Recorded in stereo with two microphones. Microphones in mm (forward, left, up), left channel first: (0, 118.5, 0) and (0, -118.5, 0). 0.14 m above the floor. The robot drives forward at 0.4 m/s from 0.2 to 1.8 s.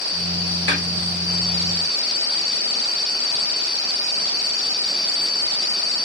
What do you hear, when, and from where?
0.7 s a snare drum: 55° left (ahead or behind), 8 m